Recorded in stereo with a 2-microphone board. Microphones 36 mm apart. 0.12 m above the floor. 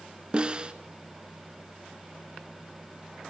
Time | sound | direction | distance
0.3 | a snare drum | 30° right (ahead or behind) | 1.2 m